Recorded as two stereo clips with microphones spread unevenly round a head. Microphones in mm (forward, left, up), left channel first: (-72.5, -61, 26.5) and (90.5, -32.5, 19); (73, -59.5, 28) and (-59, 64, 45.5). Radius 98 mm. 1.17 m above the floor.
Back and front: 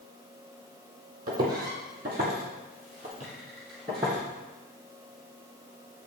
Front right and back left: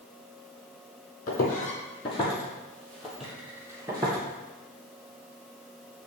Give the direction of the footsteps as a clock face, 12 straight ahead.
12 o'clock.